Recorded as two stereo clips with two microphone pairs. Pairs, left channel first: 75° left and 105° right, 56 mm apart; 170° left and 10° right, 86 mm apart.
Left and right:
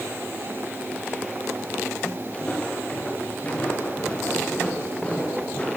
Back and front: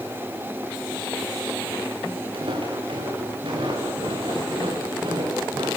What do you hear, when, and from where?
2.3 s footsteps: 10° left, 6 m